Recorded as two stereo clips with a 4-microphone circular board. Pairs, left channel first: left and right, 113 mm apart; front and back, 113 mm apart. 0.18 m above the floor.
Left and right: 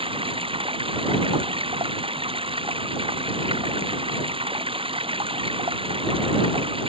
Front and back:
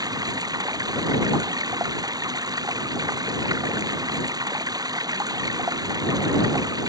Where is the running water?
125° right.